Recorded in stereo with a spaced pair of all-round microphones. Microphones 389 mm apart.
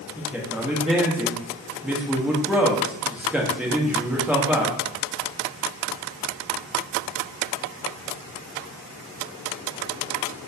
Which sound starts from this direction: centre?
A man speaking, at 0.2 s.